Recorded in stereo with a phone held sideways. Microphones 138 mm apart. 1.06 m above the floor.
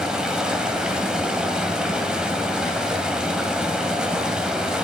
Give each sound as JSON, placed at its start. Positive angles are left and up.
{"t": 0.0, "sound": "running water", "side_deg": -5, "distance_m": 1.7}